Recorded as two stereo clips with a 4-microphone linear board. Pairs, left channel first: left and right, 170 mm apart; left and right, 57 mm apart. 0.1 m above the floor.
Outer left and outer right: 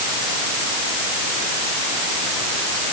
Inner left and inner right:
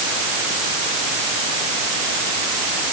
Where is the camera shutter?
I don't hear a camera shutter.